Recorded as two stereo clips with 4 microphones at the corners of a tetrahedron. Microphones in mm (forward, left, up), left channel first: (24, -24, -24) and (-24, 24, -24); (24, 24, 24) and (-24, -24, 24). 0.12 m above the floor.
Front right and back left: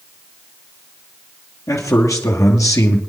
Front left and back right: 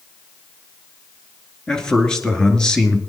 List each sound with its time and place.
1.7 s a man speaking: 30° right, 2.5 m